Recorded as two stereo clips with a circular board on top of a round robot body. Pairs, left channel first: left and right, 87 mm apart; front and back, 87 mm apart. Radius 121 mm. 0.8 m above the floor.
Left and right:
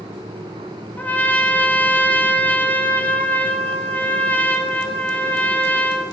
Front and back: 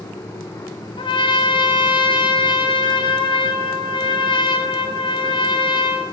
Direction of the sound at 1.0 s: 15° left.